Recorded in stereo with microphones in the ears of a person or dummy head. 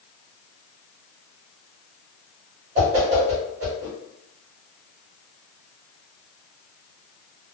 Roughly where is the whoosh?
Right.